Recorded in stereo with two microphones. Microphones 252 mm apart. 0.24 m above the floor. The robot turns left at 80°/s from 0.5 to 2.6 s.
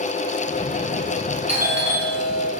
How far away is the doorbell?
About 4.5 m.